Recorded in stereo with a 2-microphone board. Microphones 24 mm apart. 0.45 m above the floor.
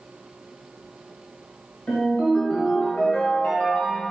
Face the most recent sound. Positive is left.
turn(degrees=70)  # may be behind; listen again after turning